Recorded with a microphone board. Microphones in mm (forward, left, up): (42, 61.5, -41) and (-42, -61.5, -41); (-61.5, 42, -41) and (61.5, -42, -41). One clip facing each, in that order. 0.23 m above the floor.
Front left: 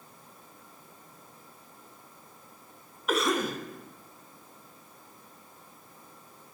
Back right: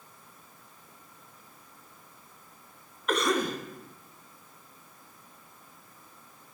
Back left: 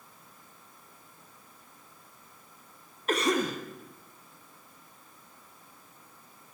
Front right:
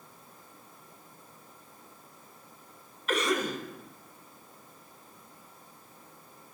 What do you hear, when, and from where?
3.1 s a cough: 140° left, 1.2 m